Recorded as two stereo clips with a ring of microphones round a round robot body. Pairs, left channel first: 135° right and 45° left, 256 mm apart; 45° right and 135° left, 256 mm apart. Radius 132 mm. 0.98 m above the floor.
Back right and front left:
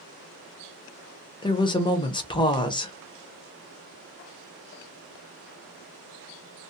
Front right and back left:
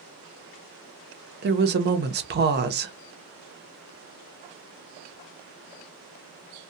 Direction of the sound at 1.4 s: 160° left.